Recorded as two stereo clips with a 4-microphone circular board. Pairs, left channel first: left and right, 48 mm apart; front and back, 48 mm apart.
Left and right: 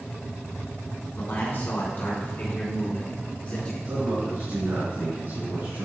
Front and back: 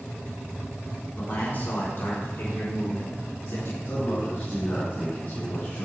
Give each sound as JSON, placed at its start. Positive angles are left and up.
{"t": 1.2, "sound": "a man speaking", "azimuth_deg": 50, "distance_m": 3.0}
{"t": 3.9, "sound": "a man speaking", "azimuth_deg": -40, "distance_m": 4.0}